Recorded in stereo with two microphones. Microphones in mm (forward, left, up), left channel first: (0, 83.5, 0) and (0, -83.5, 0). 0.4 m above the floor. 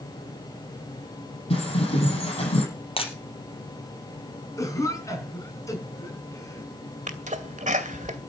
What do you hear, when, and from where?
1.5 s a bird: 35° left (ahead or behind), 8.5 m
3.0 s breaking glass: 35° left (ahead or behind), 3.5 m
4.6 s a cough: 20° left (ahead or behind), 5 m
7.1 s a sneeze: 45° right (ahead or behind), 2.5 m